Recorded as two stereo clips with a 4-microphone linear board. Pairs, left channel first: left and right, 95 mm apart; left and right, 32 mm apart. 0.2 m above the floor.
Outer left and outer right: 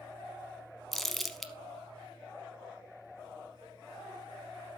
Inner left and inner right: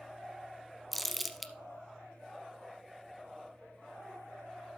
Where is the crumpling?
Centre (ahead or behind), 0.8 m.